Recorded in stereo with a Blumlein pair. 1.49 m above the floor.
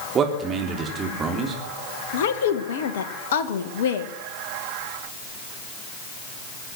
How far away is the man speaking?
About 3.5 m.